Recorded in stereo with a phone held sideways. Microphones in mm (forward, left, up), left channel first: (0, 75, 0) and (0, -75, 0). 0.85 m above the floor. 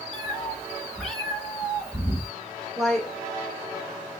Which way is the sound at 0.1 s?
5° left (ahead or behind).